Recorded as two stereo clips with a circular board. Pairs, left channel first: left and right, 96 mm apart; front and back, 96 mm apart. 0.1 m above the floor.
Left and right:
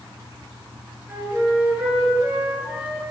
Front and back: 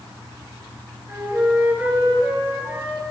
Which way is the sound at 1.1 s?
140° right.